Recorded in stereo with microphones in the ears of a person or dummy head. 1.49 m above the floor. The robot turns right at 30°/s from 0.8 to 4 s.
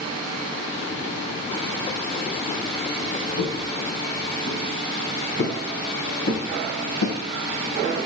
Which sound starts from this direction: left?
Footsteps, at 3.4 s.